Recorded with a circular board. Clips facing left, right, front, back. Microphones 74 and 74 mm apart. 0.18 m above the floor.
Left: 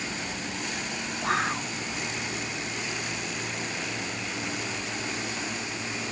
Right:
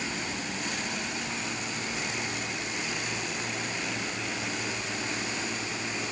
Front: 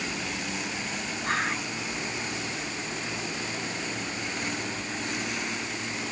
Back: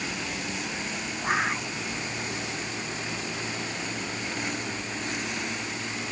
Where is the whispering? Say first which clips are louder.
Left 7 dB, back 2 dB; 100° left.